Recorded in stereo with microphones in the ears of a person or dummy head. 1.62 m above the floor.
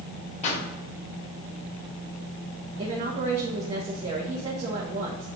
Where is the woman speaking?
20° right (ahead or behind), 1.5 m.